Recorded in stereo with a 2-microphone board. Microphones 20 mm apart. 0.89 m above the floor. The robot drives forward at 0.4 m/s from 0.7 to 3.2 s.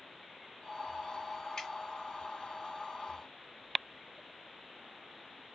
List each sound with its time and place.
1.6 s dripping: 25° left (ahead or behind), 1.2 m